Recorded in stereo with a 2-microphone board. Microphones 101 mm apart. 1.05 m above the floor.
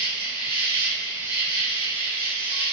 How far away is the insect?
About 1.1 m.